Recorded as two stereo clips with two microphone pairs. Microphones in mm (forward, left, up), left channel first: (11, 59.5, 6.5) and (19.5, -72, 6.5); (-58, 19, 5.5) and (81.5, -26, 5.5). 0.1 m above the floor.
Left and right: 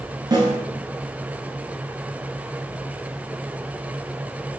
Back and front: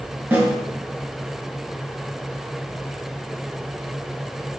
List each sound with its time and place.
0.3 s a snare drum: 85° right, 1.1 m